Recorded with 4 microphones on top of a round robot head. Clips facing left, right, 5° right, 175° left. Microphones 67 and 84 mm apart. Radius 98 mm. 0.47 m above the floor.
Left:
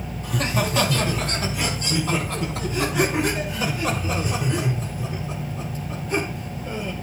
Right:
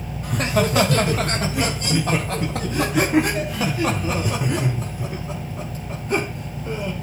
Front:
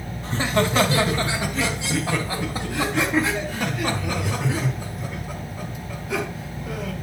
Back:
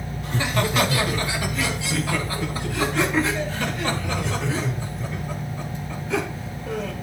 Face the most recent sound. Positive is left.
turn(degrees=-80)